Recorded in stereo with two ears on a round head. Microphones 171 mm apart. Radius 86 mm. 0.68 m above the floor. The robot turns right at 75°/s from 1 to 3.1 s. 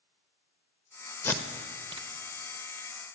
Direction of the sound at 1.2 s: 15° left (ahead or behind).